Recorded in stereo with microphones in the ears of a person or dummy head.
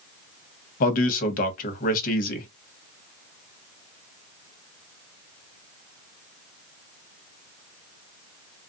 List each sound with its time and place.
0.8 s a man speaking: 55° left (ahead or behind), 1.2 m